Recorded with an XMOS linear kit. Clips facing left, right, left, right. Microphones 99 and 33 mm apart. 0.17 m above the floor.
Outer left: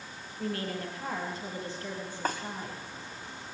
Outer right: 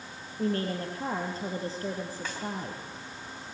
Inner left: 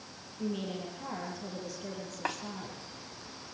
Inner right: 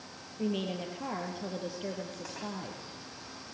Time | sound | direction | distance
0.4 | a woman speaking | 35° right (ahead or behind) | 5 m
2.2 | a snare drum | 45° left (ahead or behind) | 4 m